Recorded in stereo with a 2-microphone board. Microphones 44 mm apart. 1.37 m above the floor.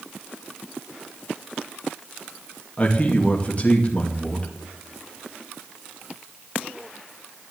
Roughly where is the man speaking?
Left.